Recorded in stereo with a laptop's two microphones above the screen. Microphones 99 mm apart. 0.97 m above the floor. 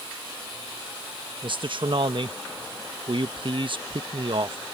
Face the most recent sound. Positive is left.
turn(degrees=-55)  # may be behind; listen again after turning